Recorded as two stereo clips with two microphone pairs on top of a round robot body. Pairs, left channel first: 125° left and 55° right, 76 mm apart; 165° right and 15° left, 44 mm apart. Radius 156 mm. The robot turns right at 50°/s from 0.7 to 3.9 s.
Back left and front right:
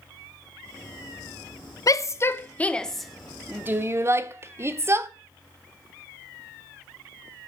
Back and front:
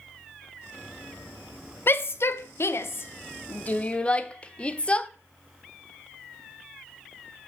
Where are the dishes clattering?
No dishes clattering in this recording.